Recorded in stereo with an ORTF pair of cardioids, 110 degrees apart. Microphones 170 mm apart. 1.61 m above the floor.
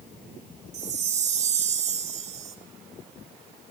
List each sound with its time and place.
0.7 s a chime: 40° right, 1.1 m